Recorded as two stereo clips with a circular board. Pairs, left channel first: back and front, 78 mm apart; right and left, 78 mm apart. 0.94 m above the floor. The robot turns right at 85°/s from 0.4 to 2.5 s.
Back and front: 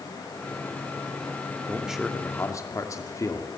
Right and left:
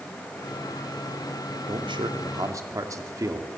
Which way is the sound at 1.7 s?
65° left.